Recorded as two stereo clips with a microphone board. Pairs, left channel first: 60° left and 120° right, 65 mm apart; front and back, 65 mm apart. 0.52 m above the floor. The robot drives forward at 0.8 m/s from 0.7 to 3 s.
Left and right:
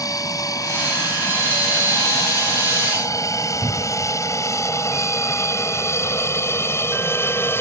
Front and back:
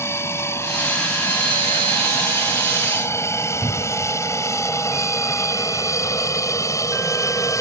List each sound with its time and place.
0.0 s an aircraft: 45° left; by 7.6 s 15° left
3.6 s a cupboard door: 110° right